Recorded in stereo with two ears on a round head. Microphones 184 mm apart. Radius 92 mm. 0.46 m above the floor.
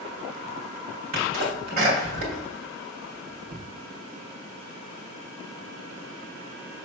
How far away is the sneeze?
About 2.5 m.